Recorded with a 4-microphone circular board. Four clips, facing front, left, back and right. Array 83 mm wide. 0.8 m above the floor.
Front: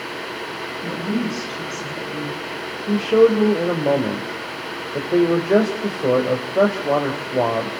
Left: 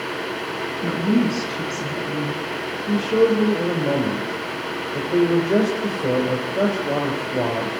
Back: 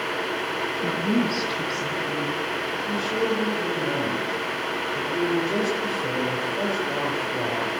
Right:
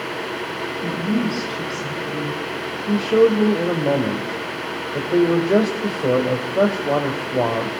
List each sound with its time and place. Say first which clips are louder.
0.8 s a woman speaking: left 3 dB, even; 115° left, 7.5 m
2.9 s a man speaking: right 2 dB, front 12 dB; 20° right, 4 m